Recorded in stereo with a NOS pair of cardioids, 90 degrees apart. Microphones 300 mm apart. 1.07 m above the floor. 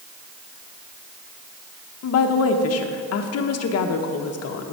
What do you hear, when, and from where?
2.0 s a woman speaking: 55° left, 0.8 m